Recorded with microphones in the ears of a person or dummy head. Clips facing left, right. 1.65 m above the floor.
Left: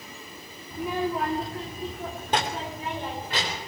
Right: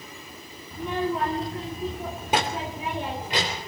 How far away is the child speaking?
About 2.5 m.